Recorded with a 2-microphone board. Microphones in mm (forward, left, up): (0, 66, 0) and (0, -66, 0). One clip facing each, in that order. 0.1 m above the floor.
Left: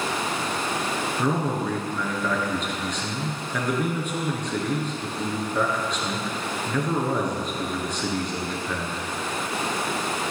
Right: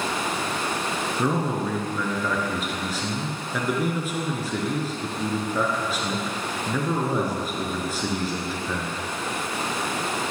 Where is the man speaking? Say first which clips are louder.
Right 1 dB; 5° right (ahead or behind), 1.2 m.